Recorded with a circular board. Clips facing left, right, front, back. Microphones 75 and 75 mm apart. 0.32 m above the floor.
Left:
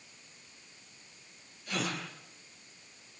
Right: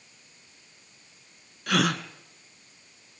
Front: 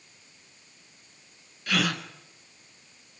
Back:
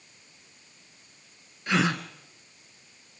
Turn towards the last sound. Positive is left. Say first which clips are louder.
# right 10 dB, back 2 dB
turn(degrees=-115)